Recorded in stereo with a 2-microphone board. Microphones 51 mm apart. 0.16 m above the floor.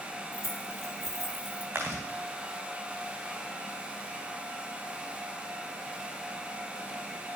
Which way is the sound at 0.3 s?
65° right (ahead or behind).